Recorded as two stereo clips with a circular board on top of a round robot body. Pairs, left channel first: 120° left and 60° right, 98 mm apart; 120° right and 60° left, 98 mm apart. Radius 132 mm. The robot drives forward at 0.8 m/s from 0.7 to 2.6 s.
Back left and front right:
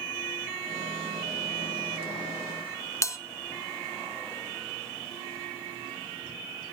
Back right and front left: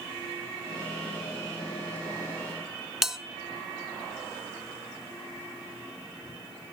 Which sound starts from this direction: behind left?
A bell, at 3.0 s.